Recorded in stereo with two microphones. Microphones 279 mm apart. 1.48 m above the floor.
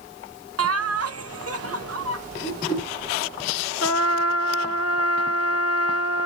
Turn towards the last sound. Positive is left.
turn(degrees=60)  # may be behind; listen again after turning